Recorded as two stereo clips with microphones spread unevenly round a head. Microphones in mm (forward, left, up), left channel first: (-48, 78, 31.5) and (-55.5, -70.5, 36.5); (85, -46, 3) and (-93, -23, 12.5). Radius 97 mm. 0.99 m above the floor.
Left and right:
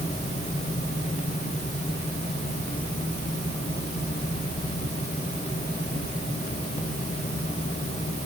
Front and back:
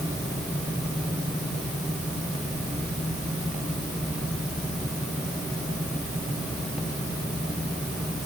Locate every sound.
Only background noise.